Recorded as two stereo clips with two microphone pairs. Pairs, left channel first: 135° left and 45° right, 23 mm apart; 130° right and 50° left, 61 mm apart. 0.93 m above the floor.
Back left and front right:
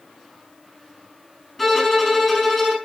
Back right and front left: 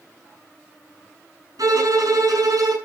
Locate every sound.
1.6 s a violin: 45° left, 4.5 m